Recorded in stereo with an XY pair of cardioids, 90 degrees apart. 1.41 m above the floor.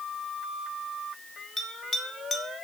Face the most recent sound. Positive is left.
turn(degrees=45)